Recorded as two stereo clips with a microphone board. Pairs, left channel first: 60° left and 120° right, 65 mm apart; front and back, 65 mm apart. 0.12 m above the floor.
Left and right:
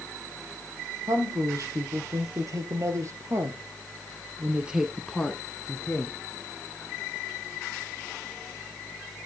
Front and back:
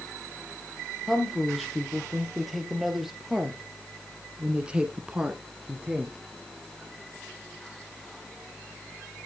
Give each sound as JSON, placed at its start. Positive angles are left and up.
{"t": 1.1, "sound": "a woman speaking", "azimuth_deg": -90, "distance_m": 3.5}